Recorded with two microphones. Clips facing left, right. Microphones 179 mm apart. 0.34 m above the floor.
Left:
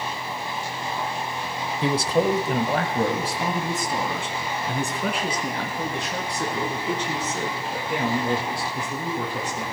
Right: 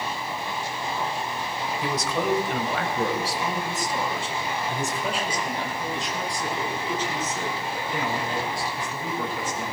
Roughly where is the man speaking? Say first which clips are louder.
Left 6 dB; left.